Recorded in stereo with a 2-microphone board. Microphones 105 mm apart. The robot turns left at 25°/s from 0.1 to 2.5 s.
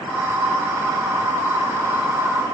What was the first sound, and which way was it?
Only background noise.